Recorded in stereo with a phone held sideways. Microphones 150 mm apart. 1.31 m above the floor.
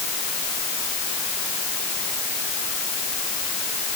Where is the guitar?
No guitar in this recording.